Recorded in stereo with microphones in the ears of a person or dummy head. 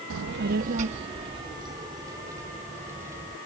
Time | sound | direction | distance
0.1 | a child speaking | 75° right (ahead or behind) | ?